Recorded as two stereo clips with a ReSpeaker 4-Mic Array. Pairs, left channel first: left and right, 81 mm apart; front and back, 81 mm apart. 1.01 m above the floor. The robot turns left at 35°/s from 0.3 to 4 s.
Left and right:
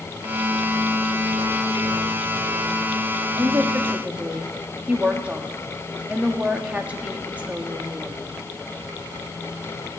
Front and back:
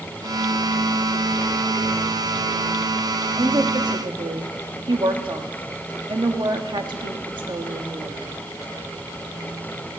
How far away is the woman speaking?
About 1.5 m.